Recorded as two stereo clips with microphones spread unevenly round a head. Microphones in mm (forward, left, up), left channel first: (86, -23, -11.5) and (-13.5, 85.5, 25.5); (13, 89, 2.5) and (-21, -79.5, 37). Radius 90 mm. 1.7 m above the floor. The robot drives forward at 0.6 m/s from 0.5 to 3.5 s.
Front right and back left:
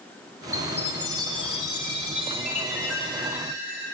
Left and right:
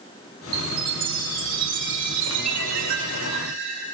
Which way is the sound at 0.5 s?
130° right.